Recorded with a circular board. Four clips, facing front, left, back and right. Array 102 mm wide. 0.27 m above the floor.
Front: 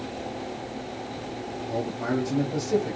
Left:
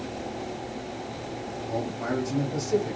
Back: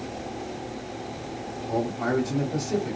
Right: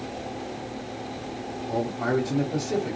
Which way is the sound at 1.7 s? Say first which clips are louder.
Right 4 dB, back 3 dB; 160° right.